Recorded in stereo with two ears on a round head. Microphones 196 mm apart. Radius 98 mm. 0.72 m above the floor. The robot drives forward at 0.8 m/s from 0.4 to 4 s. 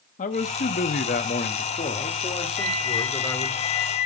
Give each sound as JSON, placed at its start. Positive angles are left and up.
{"t": 0.2, "sound": "a man speaking", "side_deg": 35, "distance_m": 0.9}
{"t": 2.6, "sound": "a flute", "side_deg": 65, "distance_m": 3.5}